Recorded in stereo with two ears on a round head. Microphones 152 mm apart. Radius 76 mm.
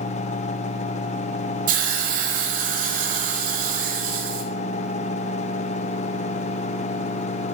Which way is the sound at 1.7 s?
50° right (ahead or behind).